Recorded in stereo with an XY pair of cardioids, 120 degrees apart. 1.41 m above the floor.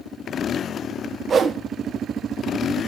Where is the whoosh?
35° right, 1.1 m.